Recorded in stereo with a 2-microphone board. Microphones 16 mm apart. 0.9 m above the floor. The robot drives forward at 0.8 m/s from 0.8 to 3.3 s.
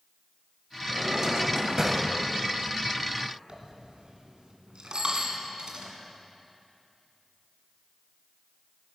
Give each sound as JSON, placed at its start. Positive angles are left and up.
{"t": 0.9, "sound": "a drawer", "side_deg": -65, "distance_m": 1.6}
{"t": 3.5, "sound": "a dropped coin", "side_deg": -55, "distance_m": 1.9}
{"t": 4.9, "sound": "a bicycle bell", "side_deg": -50, "distance_m": 5.5}